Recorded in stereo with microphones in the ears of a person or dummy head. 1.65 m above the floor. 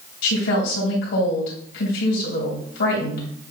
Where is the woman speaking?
75° left (ahead or behind), 3 m.